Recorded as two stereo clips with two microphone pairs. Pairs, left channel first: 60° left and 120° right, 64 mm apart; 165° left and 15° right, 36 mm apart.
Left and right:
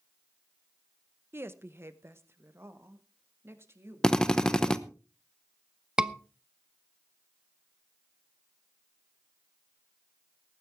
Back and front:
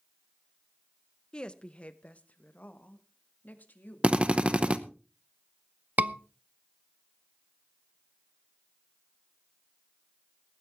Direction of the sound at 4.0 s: 5° right.